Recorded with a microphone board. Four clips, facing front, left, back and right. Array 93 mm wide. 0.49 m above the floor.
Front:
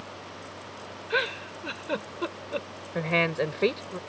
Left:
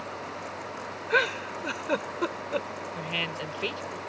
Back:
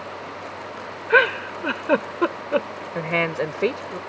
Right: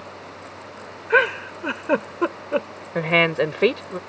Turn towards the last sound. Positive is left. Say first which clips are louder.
# right 17 dB, back 2 dB
turn(degrees=-105)